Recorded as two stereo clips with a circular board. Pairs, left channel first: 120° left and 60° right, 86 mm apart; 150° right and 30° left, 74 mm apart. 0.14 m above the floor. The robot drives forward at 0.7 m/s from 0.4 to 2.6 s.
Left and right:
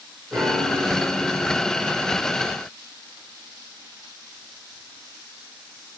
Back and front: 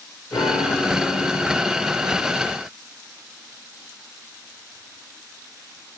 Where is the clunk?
No clunk in this recording.